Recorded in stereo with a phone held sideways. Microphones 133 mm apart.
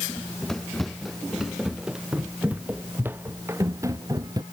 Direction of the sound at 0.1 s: 5° left (ahead or behind).